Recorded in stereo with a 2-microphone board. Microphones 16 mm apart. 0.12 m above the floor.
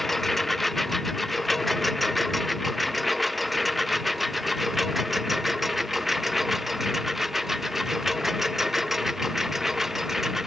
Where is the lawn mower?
15° left (ahead or behind); by 10.5 s 20° right (ahead or behind).